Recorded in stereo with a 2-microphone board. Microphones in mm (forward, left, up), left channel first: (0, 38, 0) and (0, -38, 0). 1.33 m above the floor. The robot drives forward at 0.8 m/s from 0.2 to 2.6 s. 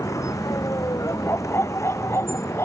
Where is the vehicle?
40° left (ahead or behind); by 2.6 s 35° left (ahead or behind).